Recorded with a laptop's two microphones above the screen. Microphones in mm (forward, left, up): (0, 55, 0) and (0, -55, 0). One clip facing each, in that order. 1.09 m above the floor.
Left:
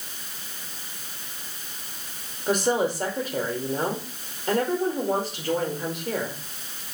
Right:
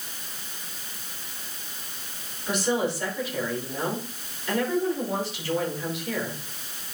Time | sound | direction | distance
2.5 | a woman speaking | 50° left (ahead or behind) | 4.5 m